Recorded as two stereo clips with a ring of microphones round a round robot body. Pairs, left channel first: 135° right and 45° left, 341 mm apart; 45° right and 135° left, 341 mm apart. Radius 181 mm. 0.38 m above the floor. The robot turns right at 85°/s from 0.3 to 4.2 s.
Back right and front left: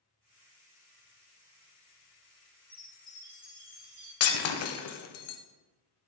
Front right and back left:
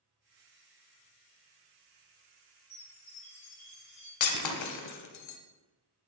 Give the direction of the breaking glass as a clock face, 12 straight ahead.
3 o'clock.